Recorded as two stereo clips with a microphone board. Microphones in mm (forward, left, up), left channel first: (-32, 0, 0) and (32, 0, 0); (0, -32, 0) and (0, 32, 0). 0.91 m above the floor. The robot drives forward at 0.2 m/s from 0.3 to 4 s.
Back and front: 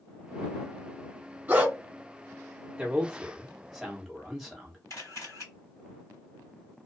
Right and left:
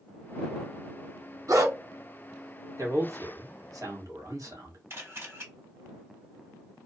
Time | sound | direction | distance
1.5 | a dog barking | 65° left | 1.7 m
2.8 | a man speaking | 75° left | 1.3 m
4.9 | a camera shutter | 140° left | 1.8 m